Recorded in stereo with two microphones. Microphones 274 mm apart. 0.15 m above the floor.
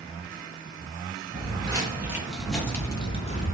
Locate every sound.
1.3 s footsteps: 20° right (ahead or behind), 1.8 m; by 3.5 s 30° left (ahead or behind), 1.1 m